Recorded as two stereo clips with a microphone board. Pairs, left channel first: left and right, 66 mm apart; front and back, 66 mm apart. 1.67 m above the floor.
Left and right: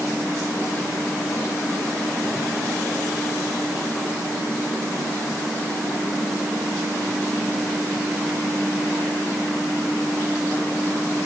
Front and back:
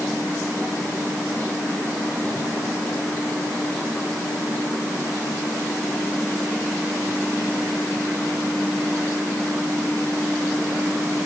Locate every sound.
Only background noise.